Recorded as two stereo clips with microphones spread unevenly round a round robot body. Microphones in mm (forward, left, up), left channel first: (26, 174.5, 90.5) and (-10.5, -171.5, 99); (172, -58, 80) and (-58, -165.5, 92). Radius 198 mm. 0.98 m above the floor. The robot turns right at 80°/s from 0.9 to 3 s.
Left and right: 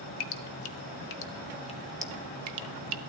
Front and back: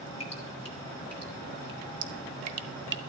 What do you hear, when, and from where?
0.2 s dripping: 95° left, 0.8 m; by 3.0 s 100° right, 0.8 m